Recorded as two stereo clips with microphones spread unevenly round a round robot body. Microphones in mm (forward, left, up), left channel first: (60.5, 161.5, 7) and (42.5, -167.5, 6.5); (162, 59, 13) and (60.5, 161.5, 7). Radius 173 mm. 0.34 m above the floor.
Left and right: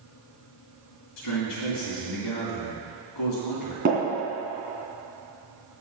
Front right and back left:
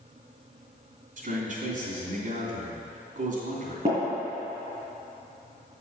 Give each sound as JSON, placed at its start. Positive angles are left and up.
{"t": 1.2, "sound": "a man speaking", "azimuth_deg": 115, "distance_m": 3.0}
{"t": 3.9, "sound": "tapping", "azimuth_deg": -160, "distance_m": 2.5}